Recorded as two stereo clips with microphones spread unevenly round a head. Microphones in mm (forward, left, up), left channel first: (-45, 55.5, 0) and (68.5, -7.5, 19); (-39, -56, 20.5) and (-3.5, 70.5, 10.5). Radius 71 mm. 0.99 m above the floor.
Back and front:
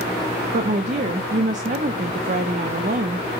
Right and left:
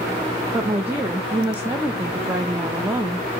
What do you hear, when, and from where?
0.5 s a woman speaking: straight ahead, 0.6 m